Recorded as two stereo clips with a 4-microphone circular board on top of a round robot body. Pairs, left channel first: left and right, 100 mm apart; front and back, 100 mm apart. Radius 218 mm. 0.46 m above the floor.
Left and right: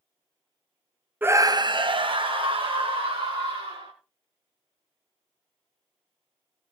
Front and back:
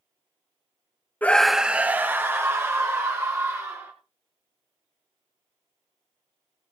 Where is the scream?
45° right, 0.8 m; by 3.9 s 120° right, 3.5 m.